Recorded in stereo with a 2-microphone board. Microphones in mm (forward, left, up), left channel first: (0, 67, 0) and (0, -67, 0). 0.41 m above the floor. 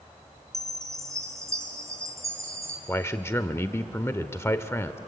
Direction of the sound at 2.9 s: 20° left (ahead or behind).